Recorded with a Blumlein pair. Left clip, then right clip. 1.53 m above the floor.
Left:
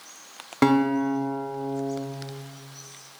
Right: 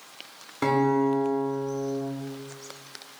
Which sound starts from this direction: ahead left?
A guitar, at 0.6 s.